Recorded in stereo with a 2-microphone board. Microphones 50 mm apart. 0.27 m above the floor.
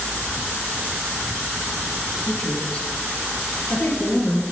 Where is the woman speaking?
20° left (ahead or behind), 3.5 m; by 4.4 s 45° left (ahead or behind), 5.5 m.